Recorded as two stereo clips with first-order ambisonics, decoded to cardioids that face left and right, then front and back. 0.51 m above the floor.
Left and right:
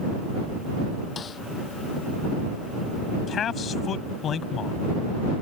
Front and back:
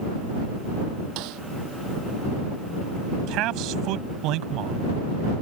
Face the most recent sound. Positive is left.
turn(degrees=150)